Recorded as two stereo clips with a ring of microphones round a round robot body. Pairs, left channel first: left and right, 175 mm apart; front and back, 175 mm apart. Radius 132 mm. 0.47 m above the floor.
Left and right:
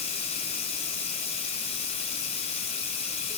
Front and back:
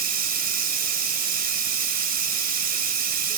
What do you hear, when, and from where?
0.0 s running water: 150° left, 2.5 m